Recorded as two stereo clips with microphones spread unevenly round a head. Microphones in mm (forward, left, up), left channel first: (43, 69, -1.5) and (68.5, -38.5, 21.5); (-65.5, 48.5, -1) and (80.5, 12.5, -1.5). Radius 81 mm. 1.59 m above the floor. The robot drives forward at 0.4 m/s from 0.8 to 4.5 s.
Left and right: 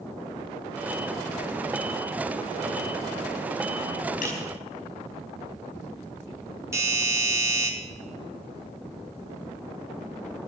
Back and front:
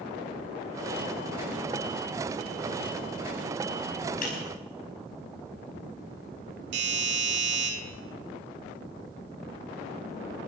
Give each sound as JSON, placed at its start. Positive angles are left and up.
{"t": 4.2, "sound": "breaking glass", "azimuth_deg": 145, "distance_m": 5.5}
{"t": 6.7, "sound": "a doorbell", "azimuth_deg": -10, "distance_m": 4.0}